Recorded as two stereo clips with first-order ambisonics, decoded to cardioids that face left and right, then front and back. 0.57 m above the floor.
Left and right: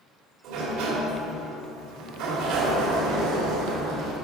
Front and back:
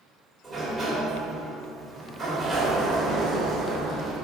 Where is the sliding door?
90° right, 2 m.